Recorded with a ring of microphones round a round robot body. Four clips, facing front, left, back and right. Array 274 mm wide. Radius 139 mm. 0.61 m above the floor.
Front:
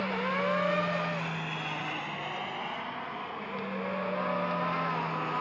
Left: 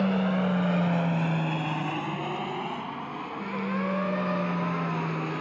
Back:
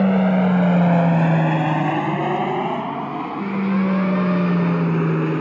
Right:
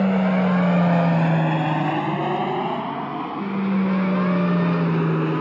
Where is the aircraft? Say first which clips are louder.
Right 6 dB, back 13 dB; 160° right; by 5.4 s 150° right.